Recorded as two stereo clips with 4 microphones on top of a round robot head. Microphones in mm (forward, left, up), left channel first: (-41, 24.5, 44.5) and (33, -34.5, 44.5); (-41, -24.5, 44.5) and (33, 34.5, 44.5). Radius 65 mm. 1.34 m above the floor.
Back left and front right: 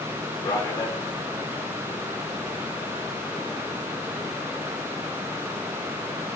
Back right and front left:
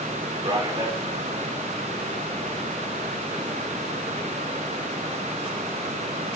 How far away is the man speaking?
About 5 m.